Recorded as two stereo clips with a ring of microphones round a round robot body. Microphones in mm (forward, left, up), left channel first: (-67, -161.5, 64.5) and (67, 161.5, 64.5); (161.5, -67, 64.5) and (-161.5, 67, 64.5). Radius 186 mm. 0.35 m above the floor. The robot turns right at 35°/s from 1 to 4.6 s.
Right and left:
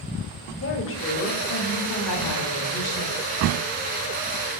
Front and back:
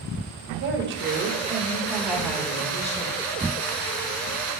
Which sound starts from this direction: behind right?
A woman speaking, at 0.6 s.